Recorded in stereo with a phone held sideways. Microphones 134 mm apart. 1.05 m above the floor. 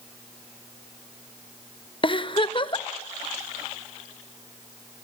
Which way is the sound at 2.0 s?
40° left (ahead or behind).